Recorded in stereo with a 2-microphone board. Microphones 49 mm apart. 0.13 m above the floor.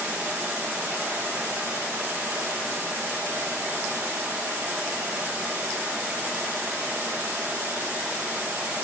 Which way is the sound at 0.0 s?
60° right (ahead or behind).